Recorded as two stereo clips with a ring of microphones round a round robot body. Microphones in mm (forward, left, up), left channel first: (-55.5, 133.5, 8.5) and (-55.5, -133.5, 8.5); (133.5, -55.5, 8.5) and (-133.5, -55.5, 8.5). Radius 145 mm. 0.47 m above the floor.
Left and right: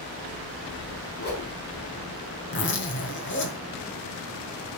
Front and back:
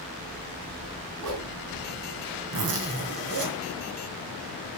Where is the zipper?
135° left, 2.0 m.